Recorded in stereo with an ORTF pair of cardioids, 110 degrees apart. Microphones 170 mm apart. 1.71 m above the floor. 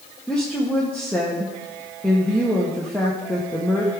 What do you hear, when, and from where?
0.3 s a woman speaking: 5° left, 1.2 m